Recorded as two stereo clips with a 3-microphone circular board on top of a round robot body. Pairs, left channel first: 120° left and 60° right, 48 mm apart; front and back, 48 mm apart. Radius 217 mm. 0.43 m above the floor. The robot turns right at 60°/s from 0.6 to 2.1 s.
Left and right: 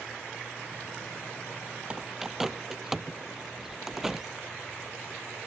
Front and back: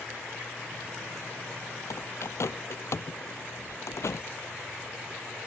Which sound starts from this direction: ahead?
A bird, at 1.9 s.